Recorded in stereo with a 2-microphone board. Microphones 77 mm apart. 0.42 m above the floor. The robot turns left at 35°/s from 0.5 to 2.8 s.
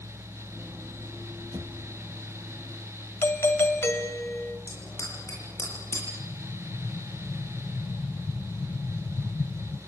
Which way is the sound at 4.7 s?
40° left (ahead or behind).